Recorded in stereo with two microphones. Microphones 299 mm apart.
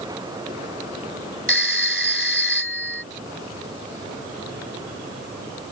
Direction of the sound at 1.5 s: 40° right (ahead or behind).